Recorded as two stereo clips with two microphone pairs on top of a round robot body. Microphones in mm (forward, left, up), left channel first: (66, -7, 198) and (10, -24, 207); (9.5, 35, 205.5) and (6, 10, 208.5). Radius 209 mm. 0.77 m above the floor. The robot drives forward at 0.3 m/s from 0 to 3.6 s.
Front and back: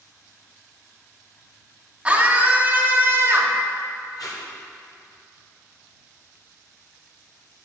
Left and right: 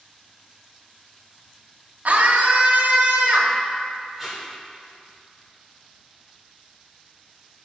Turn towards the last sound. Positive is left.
turn(degrees=-5)